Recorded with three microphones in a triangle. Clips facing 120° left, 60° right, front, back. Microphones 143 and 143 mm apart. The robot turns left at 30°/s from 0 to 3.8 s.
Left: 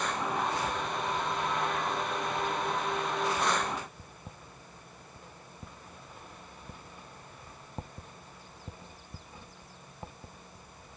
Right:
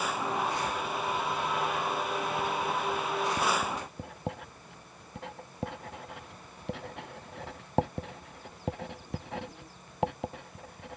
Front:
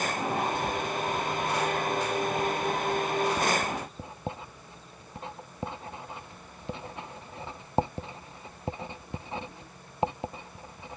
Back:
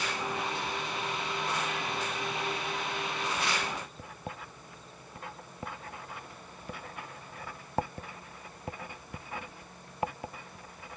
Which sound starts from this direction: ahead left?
Writing, at 0.5 s.